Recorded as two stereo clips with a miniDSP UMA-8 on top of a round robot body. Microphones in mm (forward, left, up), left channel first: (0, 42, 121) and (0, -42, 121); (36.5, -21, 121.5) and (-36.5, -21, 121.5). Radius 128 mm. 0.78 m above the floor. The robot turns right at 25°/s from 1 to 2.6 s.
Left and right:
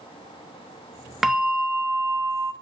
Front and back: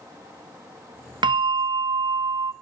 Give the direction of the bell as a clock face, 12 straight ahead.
6 o'clock.